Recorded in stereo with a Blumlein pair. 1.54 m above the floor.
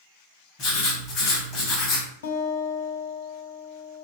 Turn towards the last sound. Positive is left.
turn(degrees=55)